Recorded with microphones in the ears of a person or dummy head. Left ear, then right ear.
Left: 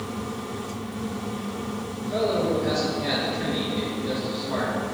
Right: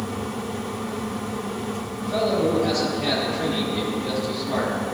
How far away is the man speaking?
About 3 m.